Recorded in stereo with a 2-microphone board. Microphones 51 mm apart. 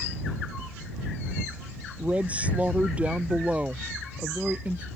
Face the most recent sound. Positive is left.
turn(degrees=-25)  # may be behind; listen again after turning